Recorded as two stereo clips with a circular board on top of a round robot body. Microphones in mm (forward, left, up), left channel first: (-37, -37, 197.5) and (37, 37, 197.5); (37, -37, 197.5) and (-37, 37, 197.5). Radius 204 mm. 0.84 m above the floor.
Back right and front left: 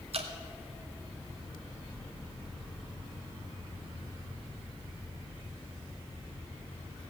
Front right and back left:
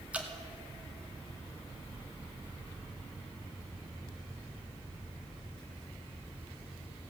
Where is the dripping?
60° left, 1.4 m.